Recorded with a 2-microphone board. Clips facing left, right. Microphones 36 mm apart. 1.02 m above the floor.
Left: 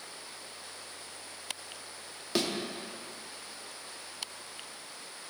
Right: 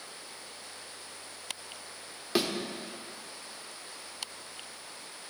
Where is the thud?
10° right (ahead or behind), 0.8 m.